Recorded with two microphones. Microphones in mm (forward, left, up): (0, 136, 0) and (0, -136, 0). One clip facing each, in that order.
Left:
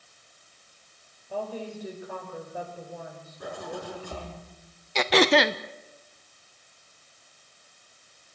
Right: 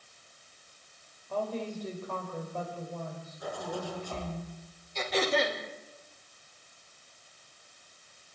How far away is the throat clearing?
About 0.8 m.